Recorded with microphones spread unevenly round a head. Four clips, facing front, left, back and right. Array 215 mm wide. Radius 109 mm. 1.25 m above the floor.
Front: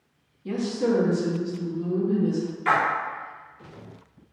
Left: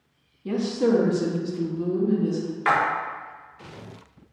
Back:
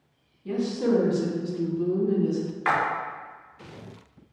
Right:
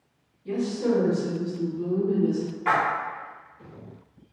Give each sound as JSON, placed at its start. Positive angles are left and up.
{"t": 0.5, "sound": "a woman speaking", "azimuth_deg": 65, "distance_m": 0.8}
{"t": 2.6, "sound": "a splash", "azimuth_deg": 110, "distance_m": 0.7}